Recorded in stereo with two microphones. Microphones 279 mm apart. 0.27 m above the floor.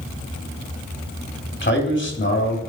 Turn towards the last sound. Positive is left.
turn(degrees=45)  # may be behind; listen again after turning